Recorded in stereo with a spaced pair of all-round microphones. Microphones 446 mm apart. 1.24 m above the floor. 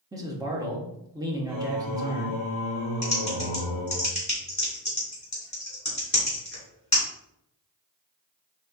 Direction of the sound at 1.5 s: 75° right (ahead or behind).